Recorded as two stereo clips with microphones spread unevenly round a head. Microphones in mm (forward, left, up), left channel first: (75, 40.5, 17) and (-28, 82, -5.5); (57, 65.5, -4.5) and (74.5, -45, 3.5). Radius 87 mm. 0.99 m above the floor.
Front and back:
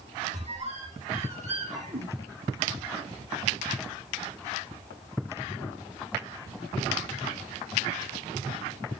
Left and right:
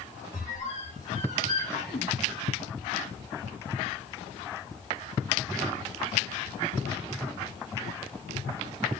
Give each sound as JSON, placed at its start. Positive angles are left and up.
{"t": 0.3, "sound": "a squeak", "azimuth_deg": 135, "distance_m": 3.0}